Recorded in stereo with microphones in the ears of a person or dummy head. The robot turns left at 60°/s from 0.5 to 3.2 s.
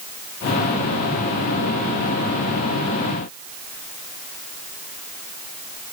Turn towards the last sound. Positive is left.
No sound to turn to.